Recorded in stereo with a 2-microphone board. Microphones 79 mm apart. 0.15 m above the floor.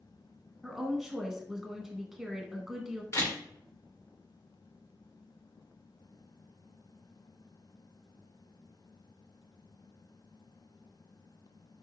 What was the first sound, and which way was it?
A woman speaking, 5° right (ahead or behind).